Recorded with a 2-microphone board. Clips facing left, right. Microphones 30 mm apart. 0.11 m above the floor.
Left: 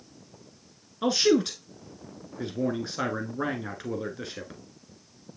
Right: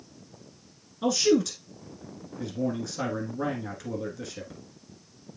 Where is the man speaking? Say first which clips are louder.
Even; 30° left (ahead or behind), 1.3 m.